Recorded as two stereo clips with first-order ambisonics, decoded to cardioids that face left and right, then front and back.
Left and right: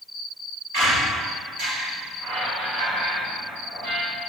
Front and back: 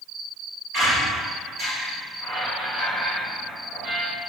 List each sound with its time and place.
0.7 s a squeak: 95° right, 1.6 m